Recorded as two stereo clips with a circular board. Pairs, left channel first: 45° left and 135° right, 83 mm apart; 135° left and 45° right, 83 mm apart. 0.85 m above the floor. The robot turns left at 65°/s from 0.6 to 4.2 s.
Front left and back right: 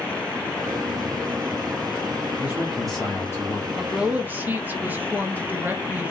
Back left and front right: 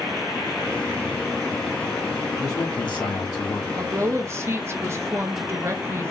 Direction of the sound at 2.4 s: 175° left.